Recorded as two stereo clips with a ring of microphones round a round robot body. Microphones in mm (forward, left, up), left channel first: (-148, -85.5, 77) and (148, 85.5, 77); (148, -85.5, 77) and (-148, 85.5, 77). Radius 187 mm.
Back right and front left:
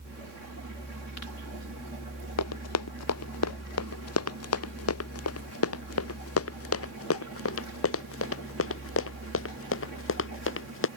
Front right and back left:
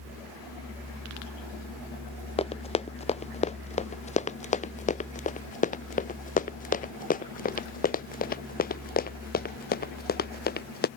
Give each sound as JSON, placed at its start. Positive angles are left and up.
{"t": 2.4, "sound": "running footsteps", "azimuth_deg": -105}